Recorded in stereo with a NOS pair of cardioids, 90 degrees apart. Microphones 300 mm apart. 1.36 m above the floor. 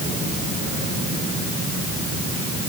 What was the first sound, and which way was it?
Only background noise.